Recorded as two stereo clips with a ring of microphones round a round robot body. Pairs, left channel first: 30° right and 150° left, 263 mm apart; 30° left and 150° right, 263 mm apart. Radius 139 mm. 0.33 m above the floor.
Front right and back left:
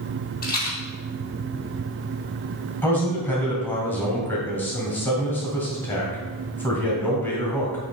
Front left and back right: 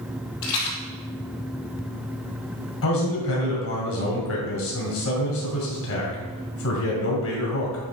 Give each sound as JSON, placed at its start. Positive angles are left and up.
{"t": 0.4, "sound": "a rattle", "azimuth_deg": 30, "distance_m": 2.5}
{"t": 2.8, "sound": "a man speaking", "azimuth_deg": 50, "distance_m": 2.0}